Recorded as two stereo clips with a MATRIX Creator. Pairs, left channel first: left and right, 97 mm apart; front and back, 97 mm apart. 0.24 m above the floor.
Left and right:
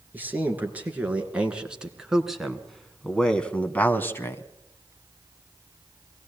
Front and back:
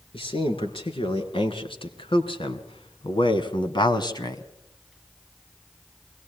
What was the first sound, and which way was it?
A man speaking, 20° right.